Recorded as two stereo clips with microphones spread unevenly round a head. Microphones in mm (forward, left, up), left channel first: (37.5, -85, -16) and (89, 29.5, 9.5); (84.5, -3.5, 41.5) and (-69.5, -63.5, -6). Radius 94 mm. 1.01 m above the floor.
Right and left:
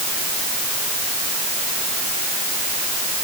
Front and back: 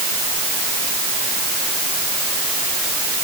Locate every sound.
Only background noise.